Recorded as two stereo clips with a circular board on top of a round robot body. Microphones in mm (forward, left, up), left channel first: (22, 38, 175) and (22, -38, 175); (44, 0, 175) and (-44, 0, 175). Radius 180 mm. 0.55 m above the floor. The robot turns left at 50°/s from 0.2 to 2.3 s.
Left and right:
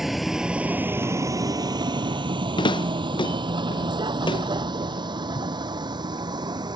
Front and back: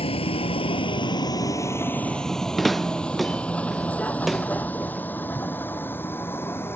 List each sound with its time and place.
0.0 s a vehicle: 5° right; by 6.8 s 65° right
2.6 s footsteps: 90° left